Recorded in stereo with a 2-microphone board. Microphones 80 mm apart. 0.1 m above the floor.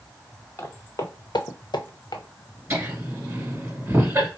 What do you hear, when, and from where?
0.6 s footsteps: 35° left (ahead or behind), 1.2 m; by 2.2 s 55° left (ahead or behind), 1.0 m
2.7 s laughter: 25° right (ahead or behind), 1.6 m